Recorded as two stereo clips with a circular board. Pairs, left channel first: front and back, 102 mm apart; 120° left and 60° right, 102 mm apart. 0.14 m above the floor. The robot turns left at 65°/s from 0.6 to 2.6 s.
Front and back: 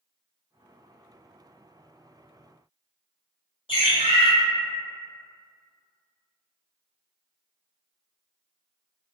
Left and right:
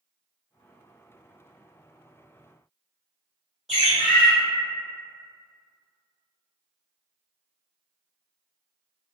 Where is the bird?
30° left, 1.5 m.